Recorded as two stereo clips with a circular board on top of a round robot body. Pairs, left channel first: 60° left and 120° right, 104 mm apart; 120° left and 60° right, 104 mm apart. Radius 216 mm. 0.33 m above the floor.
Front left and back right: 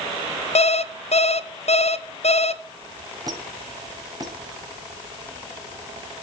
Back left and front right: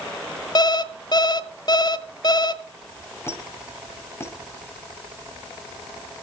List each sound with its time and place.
0.6 s an alarm clock: 70° left, 1.0 m
3.3 s a squeak: 175° right, 1.9 m